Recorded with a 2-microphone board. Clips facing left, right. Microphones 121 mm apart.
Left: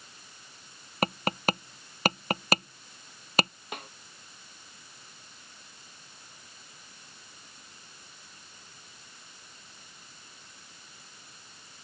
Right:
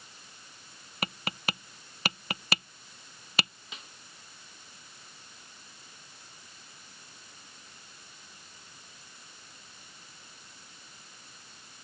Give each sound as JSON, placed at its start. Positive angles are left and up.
{"t": 1.0, "sound": "tapping", "side_deg": 45}
{"t": 3.7, "sound": "a snare drum", "side_deg": 55}